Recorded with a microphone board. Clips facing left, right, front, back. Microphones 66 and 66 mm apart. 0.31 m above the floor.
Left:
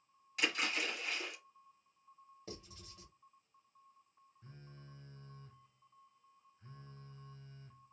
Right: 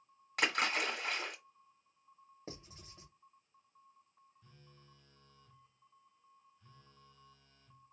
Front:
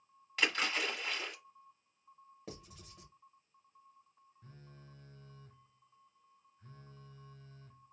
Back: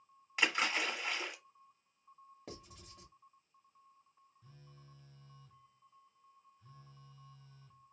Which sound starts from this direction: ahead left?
A phone buzzing, at 4.4 s.